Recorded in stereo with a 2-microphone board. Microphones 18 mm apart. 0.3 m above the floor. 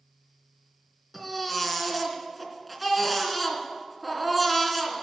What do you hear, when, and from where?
1.1 s a baby crying: 5° right (ahead or behind), 2.5 m